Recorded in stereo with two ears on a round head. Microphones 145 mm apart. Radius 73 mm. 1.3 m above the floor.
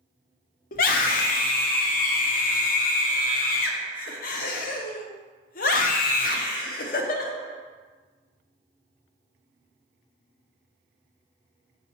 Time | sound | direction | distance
0.7 | a scream | 55° left (ahead or behind) | 0.7 m